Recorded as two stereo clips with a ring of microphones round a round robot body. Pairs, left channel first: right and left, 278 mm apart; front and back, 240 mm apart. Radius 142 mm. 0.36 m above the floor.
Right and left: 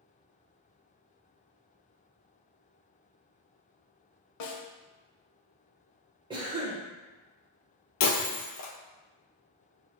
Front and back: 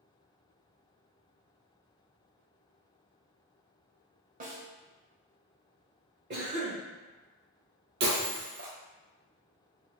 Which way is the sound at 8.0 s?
125° right.